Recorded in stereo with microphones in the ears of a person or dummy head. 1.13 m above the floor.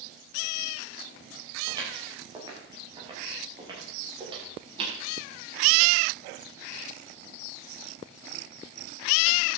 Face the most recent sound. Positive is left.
turn(degrees=-30)  # may be behind; listen again after turning